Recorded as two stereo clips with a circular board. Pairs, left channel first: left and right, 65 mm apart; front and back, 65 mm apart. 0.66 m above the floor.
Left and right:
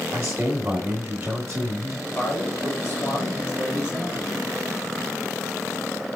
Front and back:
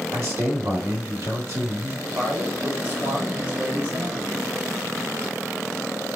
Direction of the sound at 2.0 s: 125° left.